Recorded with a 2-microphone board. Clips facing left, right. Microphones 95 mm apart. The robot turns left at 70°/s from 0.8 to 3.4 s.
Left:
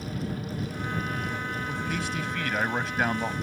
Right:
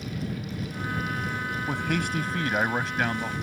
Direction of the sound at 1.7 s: 95° right.